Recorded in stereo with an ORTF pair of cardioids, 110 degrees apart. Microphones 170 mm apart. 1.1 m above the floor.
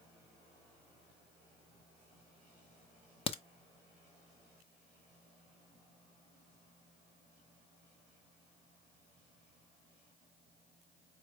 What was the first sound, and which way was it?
A crack, 35° left.